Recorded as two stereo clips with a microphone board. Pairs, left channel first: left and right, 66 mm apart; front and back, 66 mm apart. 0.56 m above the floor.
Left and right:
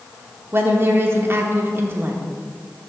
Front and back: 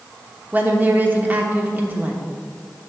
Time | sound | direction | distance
0.5 | a woman speaking | 125° right | 1.0 m